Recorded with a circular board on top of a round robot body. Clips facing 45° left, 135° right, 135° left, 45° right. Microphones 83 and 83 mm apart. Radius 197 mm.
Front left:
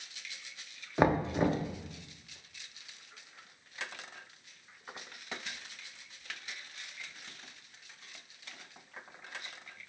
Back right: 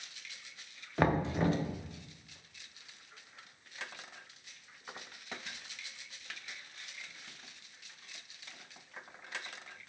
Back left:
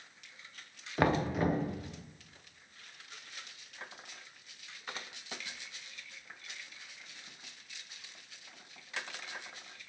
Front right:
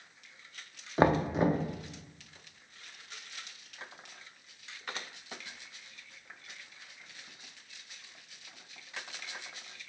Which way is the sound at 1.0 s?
15° right.